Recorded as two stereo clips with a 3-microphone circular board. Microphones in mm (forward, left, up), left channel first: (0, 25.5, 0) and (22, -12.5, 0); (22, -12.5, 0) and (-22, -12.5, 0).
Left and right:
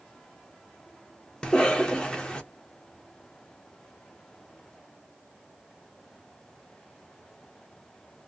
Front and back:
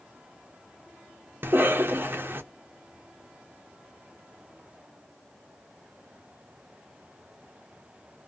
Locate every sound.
1.4 s a cough: 175° right, 0.6 m